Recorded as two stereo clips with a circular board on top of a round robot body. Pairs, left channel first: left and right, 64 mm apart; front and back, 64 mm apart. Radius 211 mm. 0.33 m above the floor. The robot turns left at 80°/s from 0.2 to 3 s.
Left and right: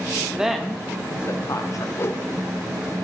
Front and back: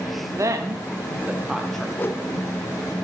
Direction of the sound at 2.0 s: 55° left.